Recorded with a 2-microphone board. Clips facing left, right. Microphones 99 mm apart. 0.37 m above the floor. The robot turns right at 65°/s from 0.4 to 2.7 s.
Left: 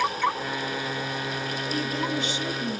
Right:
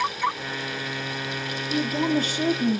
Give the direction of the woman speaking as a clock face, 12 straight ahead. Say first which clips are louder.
Right 6 dB; 5 o'clock.